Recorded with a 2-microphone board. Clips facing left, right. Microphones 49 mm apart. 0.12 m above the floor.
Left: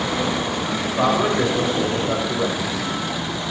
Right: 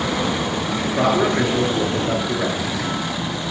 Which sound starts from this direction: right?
A man speaking, at 0.8 s.